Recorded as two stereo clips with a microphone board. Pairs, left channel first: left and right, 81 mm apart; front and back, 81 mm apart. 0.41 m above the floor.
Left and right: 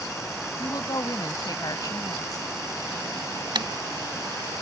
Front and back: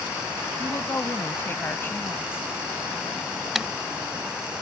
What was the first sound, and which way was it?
A woman speaking, 60° left.